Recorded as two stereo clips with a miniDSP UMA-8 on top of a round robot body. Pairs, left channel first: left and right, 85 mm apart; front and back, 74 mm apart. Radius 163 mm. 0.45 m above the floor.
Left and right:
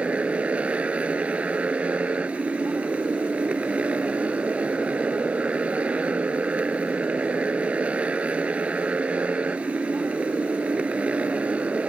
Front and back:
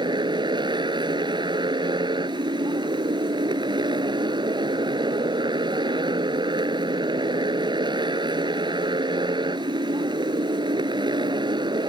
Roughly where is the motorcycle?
Behind.